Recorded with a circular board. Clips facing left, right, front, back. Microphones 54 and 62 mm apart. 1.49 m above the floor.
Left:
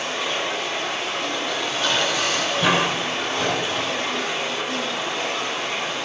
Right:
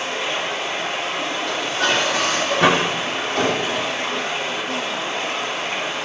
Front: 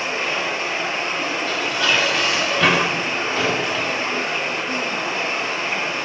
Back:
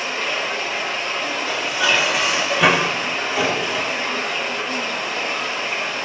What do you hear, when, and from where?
0.0 s running water: 50° right, 9.5 m
1.5 s dishes clattering: 100° right, 3 m